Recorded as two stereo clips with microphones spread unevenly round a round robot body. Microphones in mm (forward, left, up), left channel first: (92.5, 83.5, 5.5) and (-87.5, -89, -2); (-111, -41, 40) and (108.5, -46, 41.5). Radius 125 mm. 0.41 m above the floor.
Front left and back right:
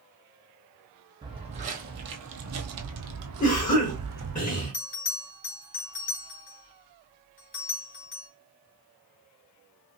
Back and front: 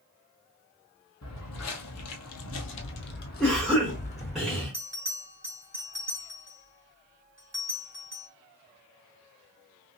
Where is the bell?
75° left, 1.8 m.